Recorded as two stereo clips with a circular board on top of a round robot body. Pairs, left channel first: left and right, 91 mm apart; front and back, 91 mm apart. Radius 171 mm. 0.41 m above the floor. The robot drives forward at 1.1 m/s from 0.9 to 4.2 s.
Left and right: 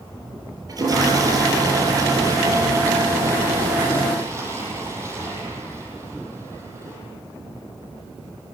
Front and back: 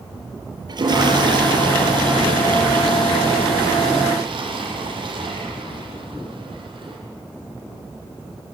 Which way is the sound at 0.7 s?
140° right.